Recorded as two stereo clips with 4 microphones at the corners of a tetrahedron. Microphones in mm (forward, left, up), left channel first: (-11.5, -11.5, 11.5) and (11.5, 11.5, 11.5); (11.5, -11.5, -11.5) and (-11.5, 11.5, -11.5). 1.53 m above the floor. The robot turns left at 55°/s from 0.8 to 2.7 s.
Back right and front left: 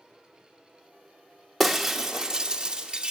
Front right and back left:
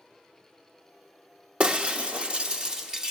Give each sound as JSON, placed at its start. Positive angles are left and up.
{"t": 1.6, "sound": "breaking glass", "azimuth_deg": 140, "distance_m": 1.0}